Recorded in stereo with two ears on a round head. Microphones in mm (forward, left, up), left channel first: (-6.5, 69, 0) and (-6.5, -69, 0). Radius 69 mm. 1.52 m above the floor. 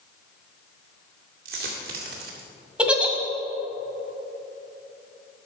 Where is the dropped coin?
65° right (ahead or behind), 2 m.